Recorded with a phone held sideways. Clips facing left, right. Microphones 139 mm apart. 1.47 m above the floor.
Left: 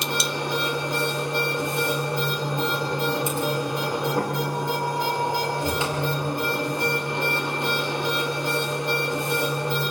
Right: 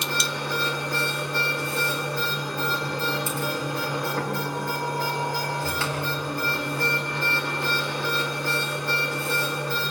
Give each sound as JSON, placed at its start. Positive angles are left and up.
{"t": 0.0, "sound": "a machine running", "side_deg": 20, "distance_m": 4.0}